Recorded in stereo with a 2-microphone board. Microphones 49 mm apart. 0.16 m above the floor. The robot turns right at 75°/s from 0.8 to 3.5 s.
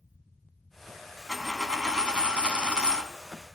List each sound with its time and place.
1.3 s a dropped coin: 5° right (ahead or behind), 0.7 m; by 3.1 s 10° right (ahead or behind), 0.7 m